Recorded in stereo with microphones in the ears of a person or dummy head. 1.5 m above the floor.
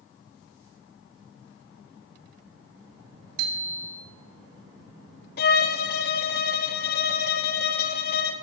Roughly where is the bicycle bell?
Right.